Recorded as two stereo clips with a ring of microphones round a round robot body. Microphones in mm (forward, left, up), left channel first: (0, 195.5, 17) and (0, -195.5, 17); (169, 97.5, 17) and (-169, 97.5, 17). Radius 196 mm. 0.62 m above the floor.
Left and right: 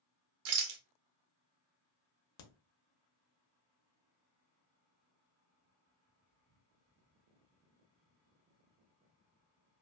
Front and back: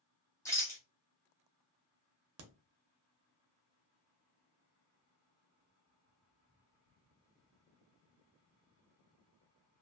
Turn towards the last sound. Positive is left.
turn(degrees=135)